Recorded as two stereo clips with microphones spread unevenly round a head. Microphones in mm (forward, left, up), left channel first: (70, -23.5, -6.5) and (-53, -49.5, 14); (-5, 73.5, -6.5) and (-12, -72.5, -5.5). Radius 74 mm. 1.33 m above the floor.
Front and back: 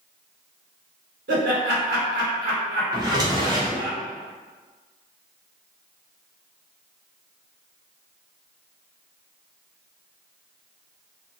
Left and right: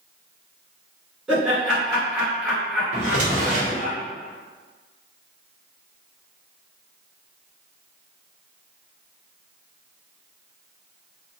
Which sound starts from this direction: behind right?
A drawer, at 2.9 s.